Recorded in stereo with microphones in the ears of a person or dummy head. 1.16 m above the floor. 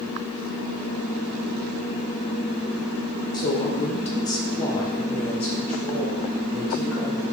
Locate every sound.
3.3 s a woman speaking: 20° left (ahead or behind), 0.7 m; by 7.2 s centre (ahead or behind), 1.8 m